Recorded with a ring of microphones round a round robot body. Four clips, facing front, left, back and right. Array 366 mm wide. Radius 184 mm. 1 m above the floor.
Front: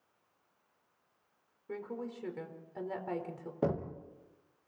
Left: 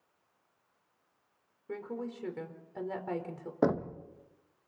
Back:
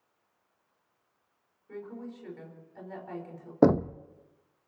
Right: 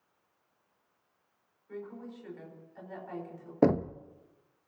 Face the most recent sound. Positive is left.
turn(degrees=-165)